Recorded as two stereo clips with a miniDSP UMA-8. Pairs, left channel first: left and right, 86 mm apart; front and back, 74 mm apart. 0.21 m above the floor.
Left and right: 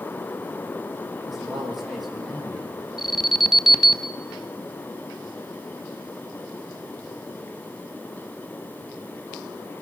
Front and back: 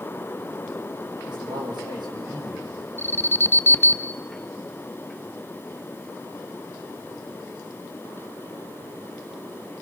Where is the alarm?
10° right, 1.0 m.